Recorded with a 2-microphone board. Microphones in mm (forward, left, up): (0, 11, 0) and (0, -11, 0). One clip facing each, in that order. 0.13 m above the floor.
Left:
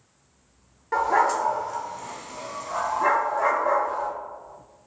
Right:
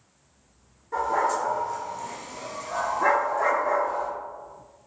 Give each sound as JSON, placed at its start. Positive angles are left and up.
{"t": 0.9, "sound": "a dog barking", "side_deg": 65, "distance_m": 0.5}